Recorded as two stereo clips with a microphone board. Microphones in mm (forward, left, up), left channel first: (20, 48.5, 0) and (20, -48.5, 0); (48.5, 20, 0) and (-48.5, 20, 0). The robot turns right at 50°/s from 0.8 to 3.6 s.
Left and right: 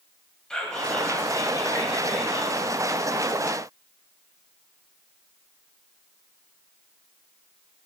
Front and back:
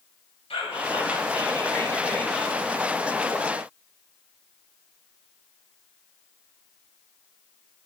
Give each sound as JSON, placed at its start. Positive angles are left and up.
{"t": 0.5, "sound": "whispering", "azimuth_deg": 5, "distance_m": 3.0}